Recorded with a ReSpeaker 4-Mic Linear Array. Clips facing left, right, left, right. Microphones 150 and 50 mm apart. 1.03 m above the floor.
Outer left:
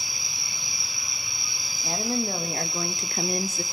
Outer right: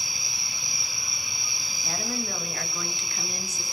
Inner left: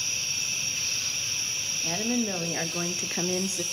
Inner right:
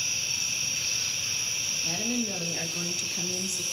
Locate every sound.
1.8 s a woman speaking: 25° left (ahead or behind), 1.3 m; by 3.6 s 55° left (ahead or behind), 0.6 m